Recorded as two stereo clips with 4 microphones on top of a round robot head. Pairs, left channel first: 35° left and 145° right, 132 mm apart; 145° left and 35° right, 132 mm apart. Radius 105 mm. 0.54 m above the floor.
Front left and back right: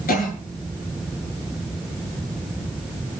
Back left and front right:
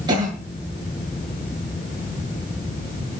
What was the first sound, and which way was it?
A cough, 25° left.